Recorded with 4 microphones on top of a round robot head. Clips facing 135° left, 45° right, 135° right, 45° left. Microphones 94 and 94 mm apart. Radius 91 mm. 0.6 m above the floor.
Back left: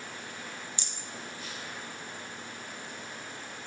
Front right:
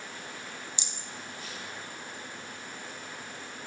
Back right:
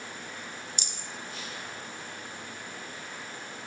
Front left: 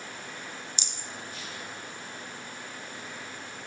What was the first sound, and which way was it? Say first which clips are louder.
A rattle: even, even; 110° right.